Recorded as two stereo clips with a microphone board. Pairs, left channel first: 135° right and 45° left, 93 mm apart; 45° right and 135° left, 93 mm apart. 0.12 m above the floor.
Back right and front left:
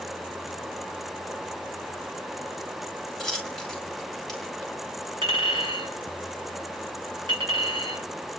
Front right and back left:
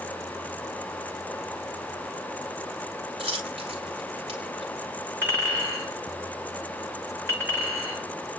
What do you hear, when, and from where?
3.2 s a dropped coin: 140° left, 3 m
5.2 s a clink: 70° left, 7.5 m